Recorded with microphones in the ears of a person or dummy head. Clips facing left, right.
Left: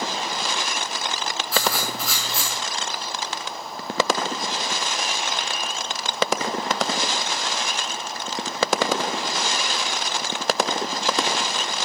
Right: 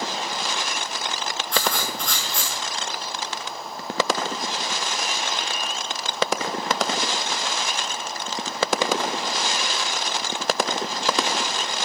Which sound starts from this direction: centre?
Writing, at 1.5 s.